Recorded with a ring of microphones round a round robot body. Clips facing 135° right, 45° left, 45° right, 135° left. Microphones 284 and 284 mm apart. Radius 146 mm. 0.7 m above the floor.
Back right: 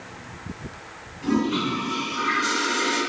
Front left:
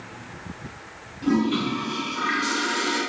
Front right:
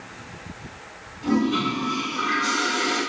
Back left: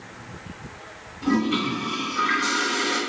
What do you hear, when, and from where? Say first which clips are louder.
1.2 s a toilet flushing: front left 1 dB, front right 1 dB; 105° left, 1.4 m